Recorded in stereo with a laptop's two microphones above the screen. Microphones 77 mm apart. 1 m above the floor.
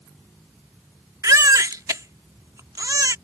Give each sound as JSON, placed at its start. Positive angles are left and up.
{"t": 1.2, "sound": "a baby crying", "side_deg": -50}